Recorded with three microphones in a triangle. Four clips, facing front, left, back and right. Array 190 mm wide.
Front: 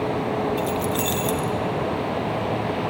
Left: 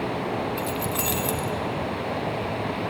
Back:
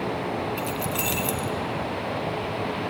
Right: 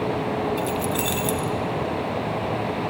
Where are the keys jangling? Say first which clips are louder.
Right 3 dB, front 5 dB; 75° left, 0.7 m.